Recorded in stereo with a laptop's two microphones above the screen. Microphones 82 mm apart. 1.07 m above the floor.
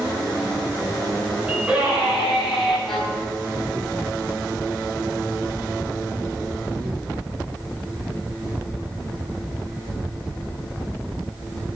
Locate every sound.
1.5 s a scream: 15° right (ahead or behind), 5.5 m; by 2.8 s 5° right (ahead or behind), 6 m
2.9 s a violin: 5° left (ahead or behind), 4.5 m